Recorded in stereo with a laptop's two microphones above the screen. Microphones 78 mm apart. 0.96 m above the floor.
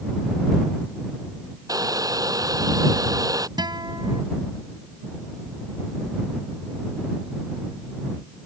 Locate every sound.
1.7 s boiling: 50° right (ahead or behind)
3.6 s a guitar: 65° right (ahead or behind)